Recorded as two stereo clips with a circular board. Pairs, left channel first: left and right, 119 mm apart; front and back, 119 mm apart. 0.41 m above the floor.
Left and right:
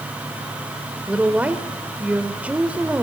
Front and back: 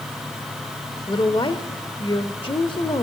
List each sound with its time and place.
1.1 s a woman speaking: 15° right, 1.4 m